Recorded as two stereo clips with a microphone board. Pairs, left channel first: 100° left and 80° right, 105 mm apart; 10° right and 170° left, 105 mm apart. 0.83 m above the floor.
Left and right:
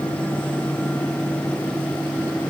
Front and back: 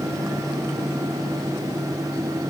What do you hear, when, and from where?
Only background noise.